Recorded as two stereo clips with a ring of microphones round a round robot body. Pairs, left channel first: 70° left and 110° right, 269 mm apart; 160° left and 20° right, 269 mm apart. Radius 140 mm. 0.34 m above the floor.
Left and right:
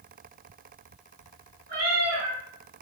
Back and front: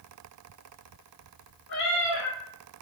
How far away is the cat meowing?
About 2 m.